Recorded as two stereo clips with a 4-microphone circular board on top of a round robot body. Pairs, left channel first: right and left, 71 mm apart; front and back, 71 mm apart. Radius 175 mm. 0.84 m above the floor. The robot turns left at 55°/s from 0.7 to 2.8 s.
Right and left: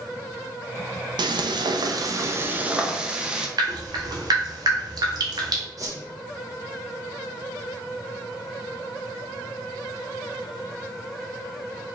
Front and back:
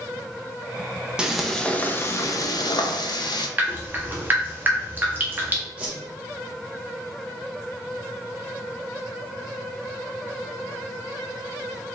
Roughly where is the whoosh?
Left.